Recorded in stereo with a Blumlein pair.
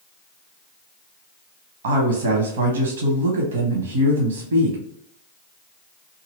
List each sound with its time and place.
1.8 s a woman speaking: 60° right, 0.8 m